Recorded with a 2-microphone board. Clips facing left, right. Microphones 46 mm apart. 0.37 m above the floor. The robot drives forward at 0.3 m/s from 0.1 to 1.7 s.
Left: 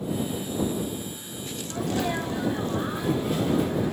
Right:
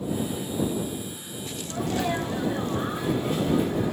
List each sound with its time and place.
1.7 s a sneeze: 5° right (ahead or behind), 1.6 m